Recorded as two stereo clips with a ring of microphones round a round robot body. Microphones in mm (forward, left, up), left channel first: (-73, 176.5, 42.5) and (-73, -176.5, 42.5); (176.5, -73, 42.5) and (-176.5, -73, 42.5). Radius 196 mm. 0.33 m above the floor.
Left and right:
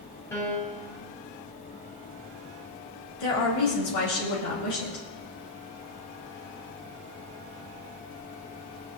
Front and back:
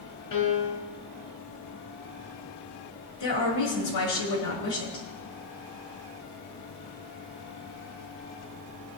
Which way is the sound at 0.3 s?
10° left.